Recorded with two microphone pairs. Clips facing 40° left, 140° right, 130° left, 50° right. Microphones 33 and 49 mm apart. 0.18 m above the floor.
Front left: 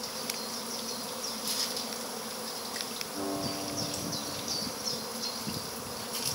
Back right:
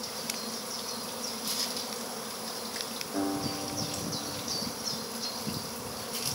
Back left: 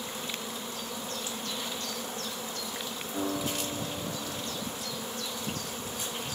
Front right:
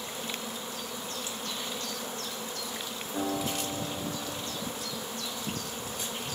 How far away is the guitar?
About 3 m.